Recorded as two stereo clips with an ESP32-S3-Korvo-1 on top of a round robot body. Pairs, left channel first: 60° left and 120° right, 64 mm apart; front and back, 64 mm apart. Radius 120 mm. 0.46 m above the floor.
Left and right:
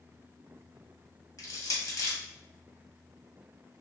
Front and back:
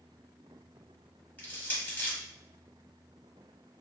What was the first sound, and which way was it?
Crushing, 65° left.